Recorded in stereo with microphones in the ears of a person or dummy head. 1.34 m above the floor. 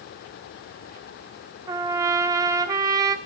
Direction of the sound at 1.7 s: 20° right (ahead or behind).